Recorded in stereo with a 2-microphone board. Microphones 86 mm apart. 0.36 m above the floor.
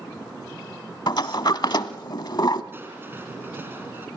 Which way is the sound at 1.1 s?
60° left (ahead or behind).